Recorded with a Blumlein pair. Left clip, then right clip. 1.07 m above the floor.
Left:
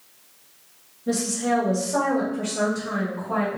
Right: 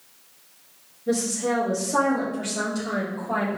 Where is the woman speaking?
15° left, 1.2 m; by 3.6 s 25° right, 2.0 m.